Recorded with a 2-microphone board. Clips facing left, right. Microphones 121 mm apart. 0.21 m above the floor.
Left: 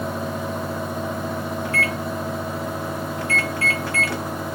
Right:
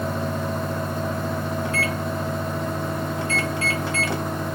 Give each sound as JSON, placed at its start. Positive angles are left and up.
{"t": 1.6, "sound": "a microwave", "side_deg": -25, "distance_m": 0.8}